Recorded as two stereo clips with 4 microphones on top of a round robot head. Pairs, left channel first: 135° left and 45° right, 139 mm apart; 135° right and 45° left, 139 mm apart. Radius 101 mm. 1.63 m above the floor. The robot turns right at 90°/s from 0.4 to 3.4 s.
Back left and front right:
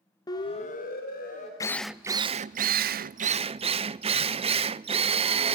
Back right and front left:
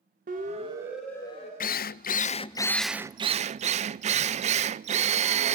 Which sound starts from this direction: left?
A siren, at 0.3 s.